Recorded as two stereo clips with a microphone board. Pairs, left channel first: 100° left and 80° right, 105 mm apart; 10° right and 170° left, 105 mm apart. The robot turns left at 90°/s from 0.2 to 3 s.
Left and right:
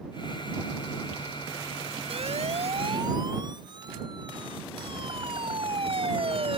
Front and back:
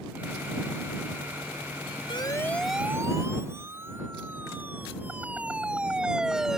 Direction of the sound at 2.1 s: 50° right.